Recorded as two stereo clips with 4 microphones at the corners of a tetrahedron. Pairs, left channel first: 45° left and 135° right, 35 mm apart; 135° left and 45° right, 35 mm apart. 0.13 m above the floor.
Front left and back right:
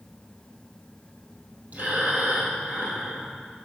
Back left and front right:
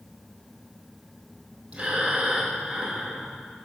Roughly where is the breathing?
Right.